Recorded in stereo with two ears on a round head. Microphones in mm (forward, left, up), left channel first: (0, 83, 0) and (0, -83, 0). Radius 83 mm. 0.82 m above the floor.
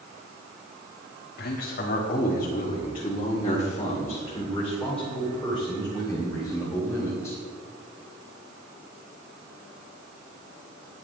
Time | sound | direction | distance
1.4 | a man speaking | 55° left (ahead or behind) | 1.7 m